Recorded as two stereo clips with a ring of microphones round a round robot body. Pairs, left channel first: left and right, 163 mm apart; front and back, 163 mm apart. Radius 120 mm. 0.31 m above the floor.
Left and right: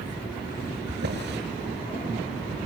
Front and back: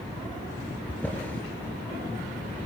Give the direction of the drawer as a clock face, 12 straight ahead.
3 o'clock.